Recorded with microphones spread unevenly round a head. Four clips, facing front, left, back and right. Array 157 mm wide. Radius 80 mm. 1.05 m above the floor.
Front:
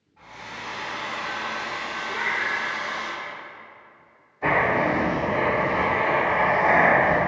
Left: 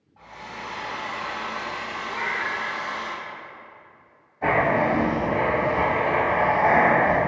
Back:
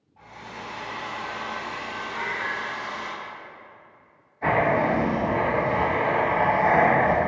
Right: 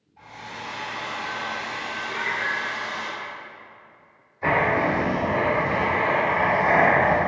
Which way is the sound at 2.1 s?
15° right.